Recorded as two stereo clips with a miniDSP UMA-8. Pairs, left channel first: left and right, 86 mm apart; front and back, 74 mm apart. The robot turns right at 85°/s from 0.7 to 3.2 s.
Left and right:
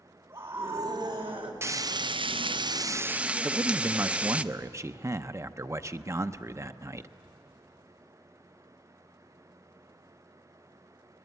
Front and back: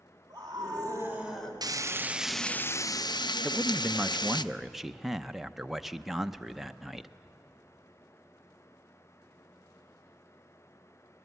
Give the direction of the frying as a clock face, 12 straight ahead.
5 o'clock.